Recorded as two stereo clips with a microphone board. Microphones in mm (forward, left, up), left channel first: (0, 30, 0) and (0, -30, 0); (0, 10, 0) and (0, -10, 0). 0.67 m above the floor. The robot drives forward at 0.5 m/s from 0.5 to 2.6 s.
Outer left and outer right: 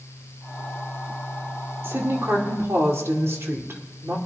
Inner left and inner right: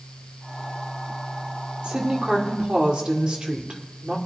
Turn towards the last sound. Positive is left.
turn(degrees=-50)  # may be behind; listen again after turning